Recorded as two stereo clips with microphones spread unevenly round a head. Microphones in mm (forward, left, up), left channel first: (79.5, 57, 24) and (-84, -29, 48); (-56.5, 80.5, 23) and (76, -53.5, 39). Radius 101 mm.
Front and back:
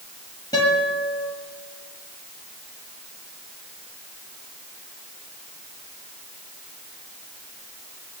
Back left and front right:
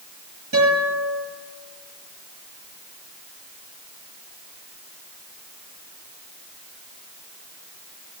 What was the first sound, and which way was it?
A guitar, 45° right.